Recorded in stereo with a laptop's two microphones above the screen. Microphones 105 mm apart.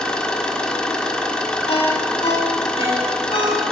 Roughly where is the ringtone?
Left.